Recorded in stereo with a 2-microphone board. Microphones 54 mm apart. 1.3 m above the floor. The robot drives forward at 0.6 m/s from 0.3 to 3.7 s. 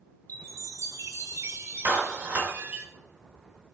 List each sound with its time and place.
0.3 s a chime: 75° right (ahead or behind), 1.0 m; by 2.9 s 35° right (ahead or behind), 1.7 m
1.9 s a clap: 40° right (ahead or behind), 2.5 m; by 2.5 s 35° right (ahead or behind), 3 m